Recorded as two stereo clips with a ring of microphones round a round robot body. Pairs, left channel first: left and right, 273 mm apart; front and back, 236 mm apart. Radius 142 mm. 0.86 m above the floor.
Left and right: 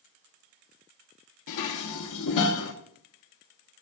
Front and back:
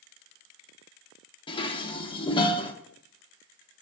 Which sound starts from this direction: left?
Dishes clattering, at 1.5 s.